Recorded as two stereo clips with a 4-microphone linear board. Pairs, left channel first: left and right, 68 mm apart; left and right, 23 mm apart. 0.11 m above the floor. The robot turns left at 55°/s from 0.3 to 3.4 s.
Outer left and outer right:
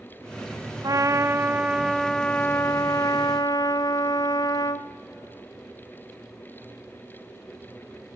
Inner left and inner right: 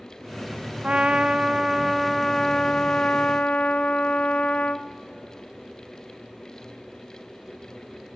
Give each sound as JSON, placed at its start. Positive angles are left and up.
{"t": 0.8, "sound": "a trumpet", "azimuth_deg": -120, "distance_m": 1.1}